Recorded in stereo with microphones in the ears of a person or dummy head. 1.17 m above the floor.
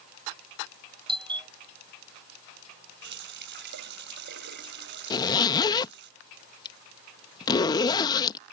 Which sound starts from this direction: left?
A zipper, at 5.1 s.